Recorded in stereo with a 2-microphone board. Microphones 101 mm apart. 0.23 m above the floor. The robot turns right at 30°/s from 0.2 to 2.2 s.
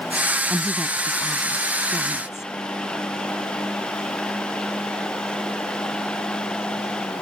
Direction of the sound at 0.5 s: 15° right.